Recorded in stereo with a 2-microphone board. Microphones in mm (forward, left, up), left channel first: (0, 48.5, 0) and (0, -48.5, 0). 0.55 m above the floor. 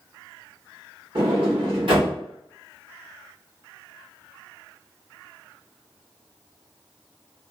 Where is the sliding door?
60° right (ahead or behind), 1.2 m.